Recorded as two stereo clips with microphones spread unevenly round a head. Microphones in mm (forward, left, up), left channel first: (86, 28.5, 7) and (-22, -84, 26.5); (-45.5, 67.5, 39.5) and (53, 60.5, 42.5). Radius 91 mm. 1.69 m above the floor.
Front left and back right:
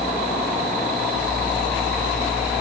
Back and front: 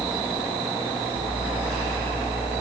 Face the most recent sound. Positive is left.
No sound to turn to.